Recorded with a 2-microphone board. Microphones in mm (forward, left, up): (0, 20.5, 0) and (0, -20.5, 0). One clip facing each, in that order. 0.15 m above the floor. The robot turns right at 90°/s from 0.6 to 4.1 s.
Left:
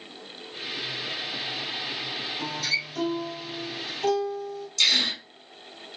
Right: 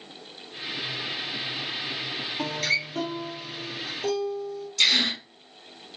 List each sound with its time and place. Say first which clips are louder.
2.4 s a guitar: right 3 dB; 85° right, 2.5 m; by 4.7 s 70° left, 2.5 m
4.8 s a gasp: right 1 dB; 10° right (ahead or behind), 1.8 m